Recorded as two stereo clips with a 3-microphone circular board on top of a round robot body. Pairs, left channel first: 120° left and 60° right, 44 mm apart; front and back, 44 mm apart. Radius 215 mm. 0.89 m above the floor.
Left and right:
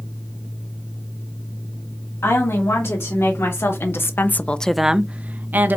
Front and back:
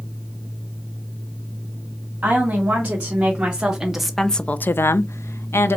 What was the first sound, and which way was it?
A woman speaking, 125° left.